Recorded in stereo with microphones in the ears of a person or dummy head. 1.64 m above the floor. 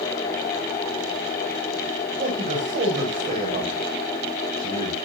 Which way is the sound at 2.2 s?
35° right (ahead or behind).